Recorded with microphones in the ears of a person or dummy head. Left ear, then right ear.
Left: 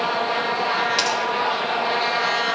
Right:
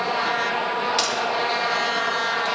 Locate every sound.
1.0 s a crack: centre (ahead or behind), 2 m